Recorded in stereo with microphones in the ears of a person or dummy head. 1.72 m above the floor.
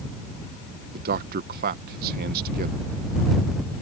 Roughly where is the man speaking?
Right.